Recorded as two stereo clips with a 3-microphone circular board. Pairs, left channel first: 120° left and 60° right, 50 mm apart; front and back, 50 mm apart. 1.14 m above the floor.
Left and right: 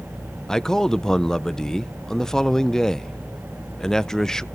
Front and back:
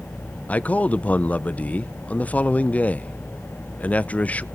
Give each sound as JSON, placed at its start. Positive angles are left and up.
{"t": 0.5, "sound": "a man speaking", "azimuth_deg": 45, "distance_m": 0.5}